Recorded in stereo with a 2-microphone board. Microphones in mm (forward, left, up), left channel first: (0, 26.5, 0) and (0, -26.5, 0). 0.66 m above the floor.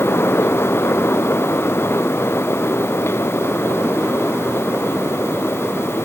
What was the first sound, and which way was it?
Only background noise.